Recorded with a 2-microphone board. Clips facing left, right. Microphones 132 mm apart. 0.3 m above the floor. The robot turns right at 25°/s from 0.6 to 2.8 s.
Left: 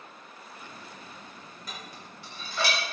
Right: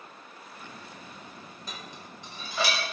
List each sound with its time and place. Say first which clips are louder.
1.7 s dishes clattering: even; 30° right (ahead or behind), 0.8 m; by 2.8 s 10° right (ahead or behind), 0.8 m